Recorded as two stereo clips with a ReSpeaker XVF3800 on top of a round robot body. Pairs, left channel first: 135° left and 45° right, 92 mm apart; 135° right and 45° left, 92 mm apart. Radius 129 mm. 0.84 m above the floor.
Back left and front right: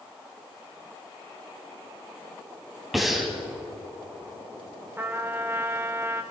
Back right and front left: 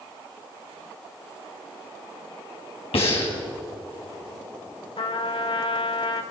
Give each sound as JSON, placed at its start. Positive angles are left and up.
{"t": 2.9, "sound": "breathing", "azimuth_deg": -135, "distance_m": 4.0}
{"t": 5.0, "sound": "a trumpet", "azimuth_deg": -110, "distance_m": 1.7}